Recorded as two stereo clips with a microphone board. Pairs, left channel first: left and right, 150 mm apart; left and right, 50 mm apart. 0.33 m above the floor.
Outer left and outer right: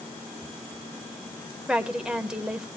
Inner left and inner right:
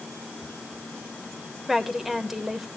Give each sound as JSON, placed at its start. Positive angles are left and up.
{"t": 1.7, "sound": "a woman speaking", "side_deg": -5, "distance_m": 0.9}